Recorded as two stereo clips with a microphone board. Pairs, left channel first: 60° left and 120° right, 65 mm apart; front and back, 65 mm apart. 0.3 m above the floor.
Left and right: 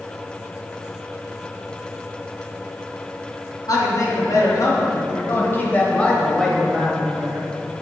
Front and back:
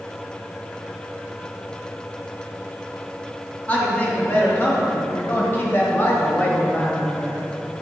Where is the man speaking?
55° left, 2 m; by 7.5 s 65° right, 1.4 m.